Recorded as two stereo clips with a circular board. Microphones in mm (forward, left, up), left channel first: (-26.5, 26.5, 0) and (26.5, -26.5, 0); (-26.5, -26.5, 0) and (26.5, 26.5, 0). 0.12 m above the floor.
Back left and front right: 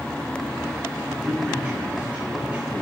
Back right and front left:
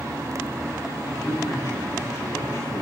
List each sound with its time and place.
1.1 s a man speaking: 120° right, 7 m